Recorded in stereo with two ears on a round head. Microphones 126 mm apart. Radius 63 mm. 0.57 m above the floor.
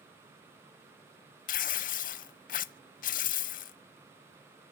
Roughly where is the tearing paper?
Left.